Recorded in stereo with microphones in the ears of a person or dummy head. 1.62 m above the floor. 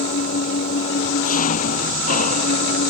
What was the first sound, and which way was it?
An engine running, 50° left (ahead or behind).